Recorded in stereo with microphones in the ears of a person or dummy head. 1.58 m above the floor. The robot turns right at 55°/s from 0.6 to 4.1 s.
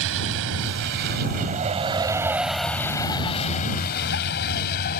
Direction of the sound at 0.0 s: 75° right (ahead or behind).